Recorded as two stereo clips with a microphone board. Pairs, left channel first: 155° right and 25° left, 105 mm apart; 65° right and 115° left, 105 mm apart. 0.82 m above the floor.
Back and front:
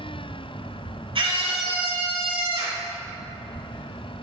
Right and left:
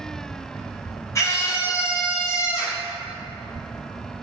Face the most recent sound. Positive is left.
turn(degrees=-5)